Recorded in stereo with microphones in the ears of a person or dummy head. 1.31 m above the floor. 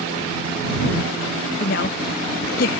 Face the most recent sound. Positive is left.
turn(degrees=55)  # may be behind; listen again after turning